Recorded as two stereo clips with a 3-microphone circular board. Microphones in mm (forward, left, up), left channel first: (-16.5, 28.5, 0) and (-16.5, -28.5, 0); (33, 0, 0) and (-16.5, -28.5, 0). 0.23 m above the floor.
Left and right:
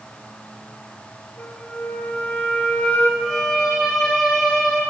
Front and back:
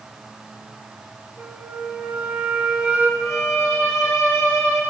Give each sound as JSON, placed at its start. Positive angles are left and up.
{"t": 1.4, "sound": "a flute", "azimuth_deg": 150, "distance_m": 0.8}
{"t": 3.2, "sound": "a violin", "azimuth_deg": 5, "distance_m": 1.6}